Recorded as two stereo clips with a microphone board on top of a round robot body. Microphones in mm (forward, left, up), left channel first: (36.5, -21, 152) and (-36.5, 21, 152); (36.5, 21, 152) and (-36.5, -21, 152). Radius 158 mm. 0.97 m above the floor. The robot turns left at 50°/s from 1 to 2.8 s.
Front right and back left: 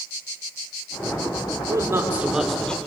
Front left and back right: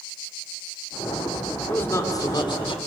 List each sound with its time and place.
1.7 s a man speaking: 100° left, 3 m; by 2.8 s 45° left, 3 m